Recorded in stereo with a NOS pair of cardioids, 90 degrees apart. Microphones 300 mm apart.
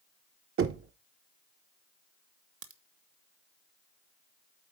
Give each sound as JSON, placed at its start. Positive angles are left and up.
{"t": 0.6, "sound": "knocking", "azimuth_deg": -40, "distance_m": 0.9}
{"t": 2.6, "sound": "a crack", "azimuth_deg": -45, "distance_m": 1.2}